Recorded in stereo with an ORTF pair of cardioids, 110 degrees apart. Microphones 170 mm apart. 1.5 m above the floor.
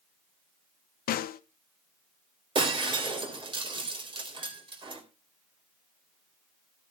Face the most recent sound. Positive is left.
turn(degrees=-30)